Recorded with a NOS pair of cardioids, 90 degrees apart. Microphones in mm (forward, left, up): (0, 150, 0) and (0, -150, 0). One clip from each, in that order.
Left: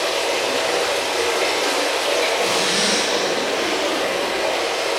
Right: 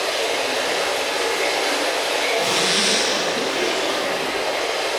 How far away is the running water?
About 1.7 m.